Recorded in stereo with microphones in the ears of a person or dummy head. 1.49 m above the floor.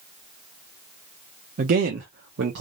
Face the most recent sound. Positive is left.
turn(degrees=-60)  # may be behind; listen again after turning